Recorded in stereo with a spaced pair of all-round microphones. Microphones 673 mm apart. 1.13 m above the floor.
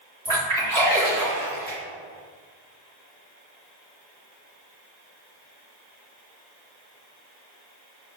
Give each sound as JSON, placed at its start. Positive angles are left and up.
{"t": 0.2, "sound": "a splash", "side_deg": -55, "distance_m": 1.8}